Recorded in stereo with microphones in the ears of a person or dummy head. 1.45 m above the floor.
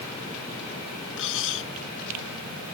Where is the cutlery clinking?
75° left (ahead or behind).